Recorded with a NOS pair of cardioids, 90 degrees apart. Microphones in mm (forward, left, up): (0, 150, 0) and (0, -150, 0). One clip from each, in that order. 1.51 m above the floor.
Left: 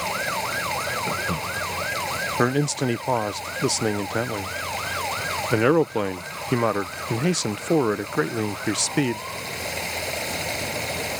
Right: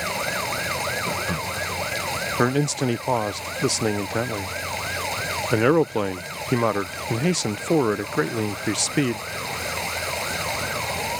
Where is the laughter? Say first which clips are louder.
Even; 10° right.